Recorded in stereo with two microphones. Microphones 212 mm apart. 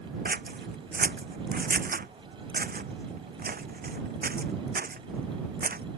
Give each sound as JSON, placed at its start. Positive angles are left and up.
{"t": 0.2, "sound": "scissors", "side_deg": -45}